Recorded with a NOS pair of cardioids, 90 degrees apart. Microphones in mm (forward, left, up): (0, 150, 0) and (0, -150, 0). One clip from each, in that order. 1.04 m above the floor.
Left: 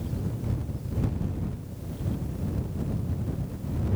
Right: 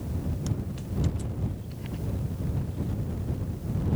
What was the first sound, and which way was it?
Only background noise.